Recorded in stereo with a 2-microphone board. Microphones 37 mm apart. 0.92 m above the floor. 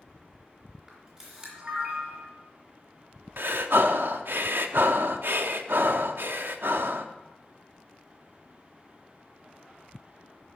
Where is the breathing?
65° right (ahead or behind), 0.7 m.